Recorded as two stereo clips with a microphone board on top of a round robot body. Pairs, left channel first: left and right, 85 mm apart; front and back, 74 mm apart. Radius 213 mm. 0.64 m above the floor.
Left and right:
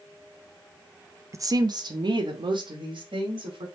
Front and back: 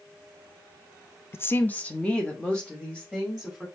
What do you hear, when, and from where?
1.3 s a woman speaking: 45° right, 0.6 m; by 3.7 s 85° right, 2 m